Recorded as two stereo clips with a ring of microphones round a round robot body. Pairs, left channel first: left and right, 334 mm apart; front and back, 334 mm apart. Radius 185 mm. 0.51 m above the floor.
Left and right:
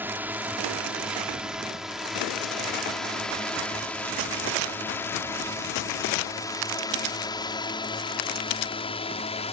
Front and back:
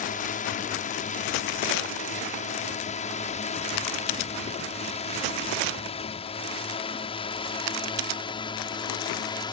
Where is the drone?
15° right; by 9.5 s 55° left.